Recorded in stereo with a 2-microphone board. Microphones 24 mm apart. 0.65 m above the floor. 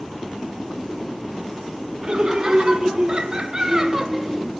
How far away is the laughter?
About 1.7 m.